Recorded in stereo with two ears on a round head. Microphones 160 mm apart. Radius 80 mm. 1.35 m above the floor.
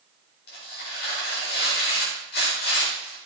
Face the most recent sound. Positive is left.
turn(degrees=60)  # may be behind; listen again after turning